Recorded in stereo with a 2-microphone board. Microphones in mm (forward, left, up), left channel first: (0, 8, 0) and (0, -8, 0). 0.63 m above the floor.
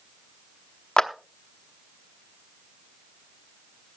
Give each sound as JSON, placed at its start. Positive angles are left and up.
{"t": 1.0, "sound": "a clap", "side_deg": 55, "distance_m": 0.9}